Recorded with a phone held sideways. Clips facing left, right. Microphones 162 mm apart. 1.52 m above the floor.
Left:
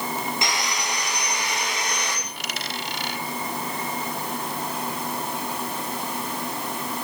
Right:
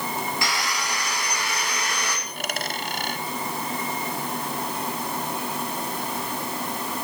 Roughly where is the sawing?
Centre.